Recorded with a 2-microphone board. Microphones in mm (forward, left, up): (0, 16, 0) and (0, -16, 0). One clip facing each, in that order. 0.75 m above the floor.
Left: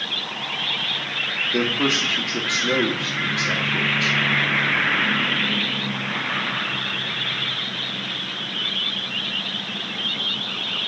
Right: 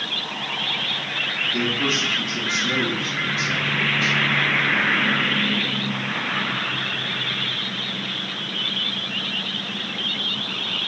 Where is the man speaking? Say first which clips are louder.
Left 1 dB; 65° left (ahead or behind), 1.2 m.